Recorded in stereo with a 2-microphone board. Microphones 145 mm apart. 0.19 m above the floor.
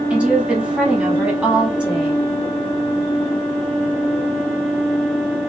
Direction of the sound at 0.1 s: 10° right (ahead or behind).